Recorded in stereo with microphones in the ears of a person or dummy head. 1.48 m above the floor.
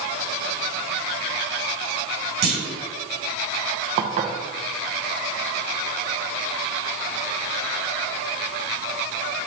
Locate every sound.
2.4 s a clunk: 65° right (ahead or behind), 2 m
4.0 s dishes clattering: 35° right (ahead or behind), 0.7 m